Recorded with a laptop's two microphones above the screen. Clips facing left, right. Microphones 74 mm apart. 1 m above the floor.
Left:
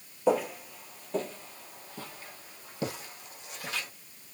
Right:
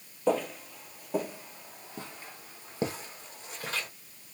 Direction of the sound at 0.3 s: 10° left (ahead or behind).